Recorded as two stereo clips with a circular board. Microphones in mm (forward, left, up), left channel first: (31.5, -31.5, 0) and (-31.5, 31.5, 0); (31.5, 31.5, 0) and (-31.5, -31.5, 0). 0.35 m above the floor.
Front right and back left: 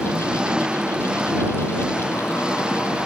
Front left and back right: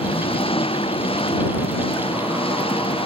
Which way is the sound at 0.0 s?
55° left.